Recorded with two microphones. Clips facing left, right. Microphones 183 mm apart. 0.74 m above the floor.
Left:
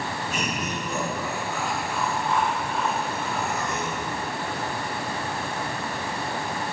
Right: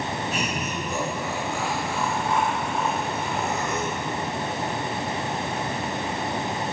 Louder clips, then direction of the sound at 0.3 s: Right 1 dB; 5° right (ahead or behind).